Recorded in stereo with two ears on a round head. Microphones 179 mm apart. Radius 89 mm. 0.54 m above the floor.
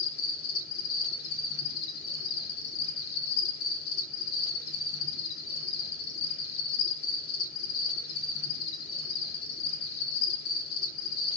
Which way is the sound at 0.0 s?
80° left.